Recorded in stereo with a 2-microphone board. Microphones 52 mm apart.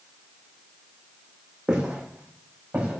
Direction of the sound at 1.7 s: 15° right (ahead or behind).